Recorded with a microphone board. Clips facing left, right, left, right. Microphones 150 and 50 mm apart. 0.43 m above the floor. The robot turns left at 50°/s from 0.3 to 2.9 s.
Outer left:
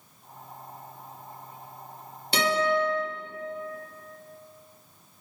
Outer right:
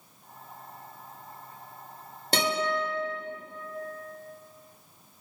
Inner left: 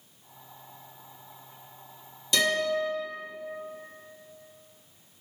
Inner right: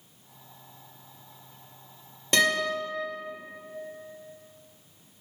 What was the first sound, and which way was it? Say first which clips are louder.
A guitar: outer left 3 dB, inner right 1 dB; 45° right (ahead or behind).